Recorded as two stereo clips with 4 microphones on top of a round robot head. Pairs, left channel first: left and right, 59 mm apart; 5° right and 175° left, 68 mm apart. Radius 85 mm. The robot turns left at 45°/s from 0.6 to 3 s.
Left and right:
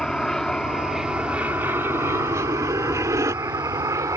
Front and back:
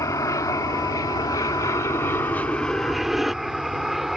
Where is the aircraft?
15° left; by 4.2 s 100° right.